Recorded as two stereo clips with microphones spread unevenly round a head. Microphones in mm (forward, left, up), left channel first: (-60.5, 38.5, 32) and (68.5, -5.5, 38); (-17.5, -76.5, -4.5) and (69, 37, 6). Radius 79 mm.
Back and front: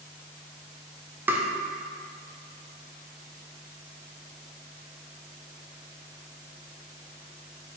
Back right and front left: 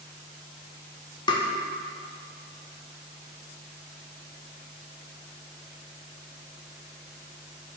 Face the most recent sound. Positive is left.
turn(degrees=-90)